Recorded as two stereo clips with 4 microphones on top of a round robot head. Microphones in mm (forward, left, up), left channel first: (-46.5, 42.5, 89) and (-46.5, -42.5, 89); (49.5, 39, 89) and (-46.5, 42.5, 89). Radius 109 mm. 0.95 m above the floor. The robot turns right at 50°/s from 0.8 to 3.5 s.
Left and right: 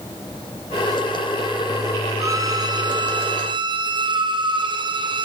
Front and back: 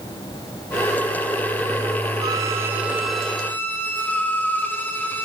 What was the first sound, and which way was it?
A violin, 140° right.